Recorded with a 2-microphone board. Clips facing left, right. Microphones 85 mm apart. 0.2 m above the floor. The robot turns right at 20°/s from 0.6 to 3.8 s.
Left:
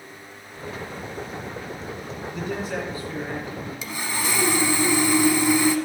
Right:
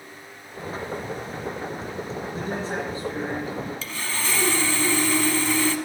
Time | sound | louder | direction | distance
2.3 | a man speaking | left 1 dB | 35° right (ahead or behind) | 2.5 m
3.8 | sawing | left 2 dB | 15° left (ahead or behind) | 0.7 m